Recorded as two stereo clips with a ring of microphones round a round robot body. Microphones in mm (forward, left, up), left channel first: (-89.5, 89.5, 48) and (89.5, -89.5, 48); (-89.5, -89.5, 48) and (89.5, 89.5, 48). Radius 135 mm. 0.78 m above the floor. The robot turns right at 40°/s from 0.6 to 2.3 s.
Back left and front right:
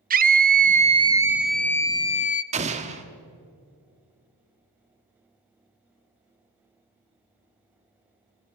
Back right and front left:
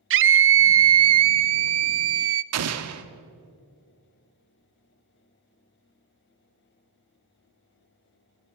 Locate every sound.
0.1 s a scream: 10° left, 0.9 m; by 2.4 s 80° left, 0.9 m
2.5 s an explosion: 20° left, 1.4 m